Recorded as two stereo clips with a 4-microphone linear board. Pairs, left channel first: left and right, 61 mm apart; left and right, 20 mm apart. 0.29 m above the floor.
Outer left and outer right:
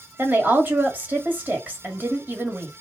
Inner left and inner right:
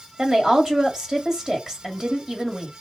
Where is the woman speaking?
30° right (ahead or behind), 1.4 m.